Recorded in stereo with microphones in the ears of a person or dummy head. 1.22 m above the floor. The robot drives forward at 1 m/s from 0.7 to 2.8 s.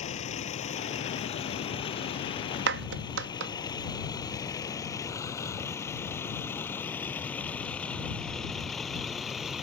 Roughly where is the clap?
Right.